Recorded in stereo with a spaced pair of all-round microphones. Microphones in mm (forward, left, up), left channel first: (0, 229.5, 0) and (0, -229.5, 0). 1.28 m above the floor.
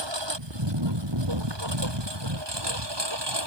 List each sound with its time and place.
0.0 s a lawn mower: 65° right (ahead or behind); by 3.5 s 60° right (ahead or behind)